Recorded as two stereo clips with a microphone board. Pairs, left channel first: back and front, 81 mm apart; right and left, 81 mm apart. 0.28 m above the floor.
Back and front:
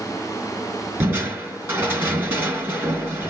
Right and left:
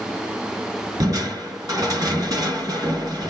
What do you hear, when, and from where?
1.0 s crushing: 55° left, 3 m